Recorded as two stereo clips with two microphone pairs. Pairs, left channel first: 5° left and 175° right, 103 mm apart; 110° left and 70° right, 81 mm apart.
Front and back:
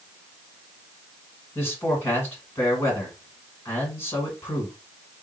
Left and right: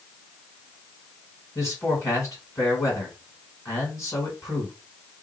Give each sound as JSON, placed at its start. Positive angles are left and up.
{"t": 1.6, "sound": "a man speaking", "azimuth_deg": 65, "distance_m": 1.9}